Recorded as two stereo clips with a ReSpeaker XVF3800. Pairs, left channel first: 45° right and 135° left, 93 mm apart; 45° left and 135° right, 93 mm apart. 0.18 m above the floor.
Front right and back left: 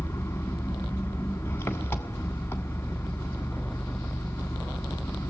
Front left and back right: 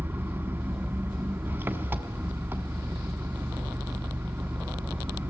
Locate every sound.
0.0 s an engine running: 85° right, 1.5 m